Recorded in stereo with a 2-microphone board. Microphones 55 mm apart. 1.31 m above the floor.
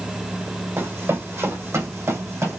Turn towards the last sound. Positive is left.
turn(degrees=-70)  # may be behind; listen again after turning